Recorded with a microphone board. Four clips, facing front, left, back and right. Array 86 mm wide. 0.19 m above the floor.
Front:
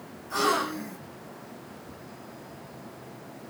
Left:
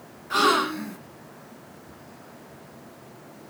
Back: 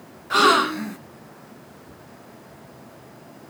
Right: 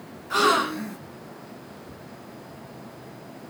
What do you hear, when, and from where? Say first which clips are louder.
0.3 s a gasp: even, back 9 dB; straight behind, 0.7 m